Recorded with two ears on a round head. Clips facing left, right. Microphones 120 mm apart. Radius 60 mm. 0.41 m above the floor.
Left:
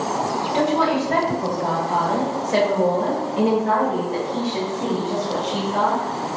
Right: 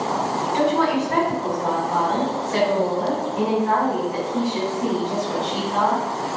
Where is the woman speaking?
40° left (ahead or behind), 1.9 m; by 6.0 s 25° left (ahead or behind), 1.8 m.